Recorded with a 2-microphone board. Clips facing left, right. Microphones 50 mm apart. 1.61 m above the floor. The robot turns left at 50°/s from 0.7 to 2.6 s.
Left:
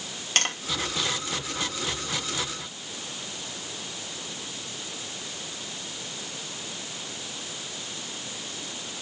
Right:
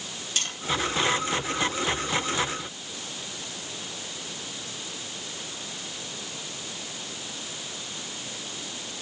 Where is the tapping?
60° left (ahead or behind), 2.5 m.